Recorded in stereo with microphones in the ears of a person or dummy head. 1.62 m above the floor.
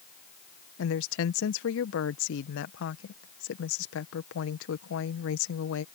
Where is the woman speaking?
70° left (ahead or behind).